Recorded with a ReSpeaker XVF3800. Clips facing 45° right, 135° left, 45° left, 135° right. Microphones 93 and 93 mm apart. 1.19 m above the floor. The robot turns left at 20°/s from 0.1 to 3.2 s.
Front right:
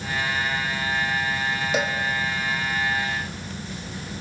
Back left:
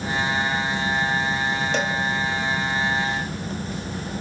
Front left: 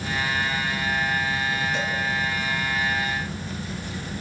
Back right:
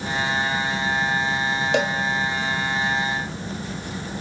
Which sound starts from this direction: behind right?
A cowbell, at 1.7 s.